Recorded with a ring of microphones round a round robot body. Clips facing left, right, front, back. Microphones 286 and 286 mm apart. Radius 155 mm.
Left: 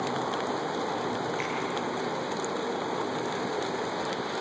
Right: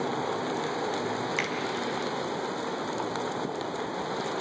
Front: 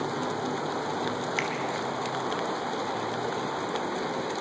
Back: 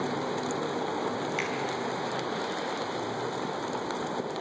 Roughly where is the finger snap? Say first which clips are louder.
Even, front 1 dB; ahead right.